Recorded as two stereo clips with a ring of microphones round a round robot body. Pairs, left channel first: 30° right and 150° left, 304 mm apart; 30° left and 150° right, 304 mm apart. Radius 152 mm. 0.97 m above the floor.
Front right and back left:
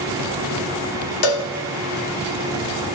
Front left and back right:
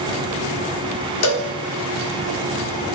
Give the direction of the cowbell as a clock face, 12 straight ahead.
12 o'clock.